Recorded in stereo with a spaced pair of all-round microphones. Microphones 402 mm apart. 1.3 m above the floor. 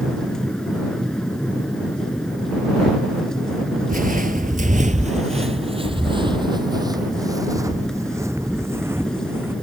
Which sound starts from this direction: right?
Footsteps, at 3.9 s.